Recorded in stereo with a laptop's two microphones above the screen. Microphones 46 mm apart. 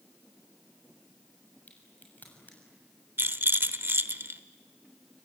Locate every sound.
1.7 s a crack: 40° left (ahead or behind), 6.5 m
3.2 s a rattle: 55° right (ahead or behind), 1.0 m